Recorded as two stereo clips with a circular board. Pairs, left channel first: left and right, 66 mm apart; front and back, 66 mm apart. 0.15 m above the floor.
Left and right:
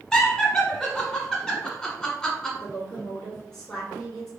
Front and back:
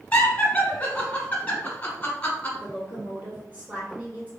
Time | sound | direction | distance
0.1 | laughter | 25° left | 1.2 m
2.6 | a woman speaking | 165° left | 1.2 m